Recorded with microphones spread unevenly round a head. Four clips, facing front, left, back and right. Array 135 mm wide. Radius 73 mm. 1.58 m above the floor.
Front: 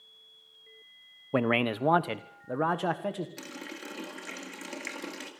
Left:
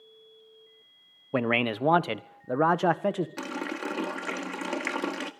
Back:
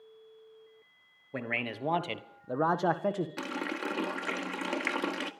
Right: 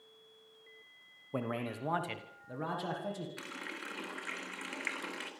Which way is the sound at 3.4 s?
125° left.